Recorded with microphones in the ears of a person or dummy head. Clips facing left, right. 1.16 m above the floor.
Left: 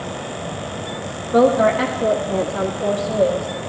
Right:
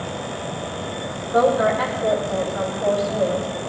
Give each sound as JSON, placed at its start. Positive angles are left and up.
{"t": 1.3, "sound": "a woman speaking", "side_deg": 40, "distance_m": 2.0}